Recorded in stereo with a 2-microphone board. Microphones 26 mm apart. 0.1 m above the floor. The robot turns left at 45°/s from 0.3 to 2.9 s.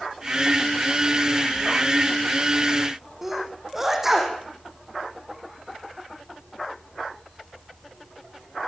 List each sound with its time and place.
3.2 s a sneeze: 10° right (ahead or behind), 6 m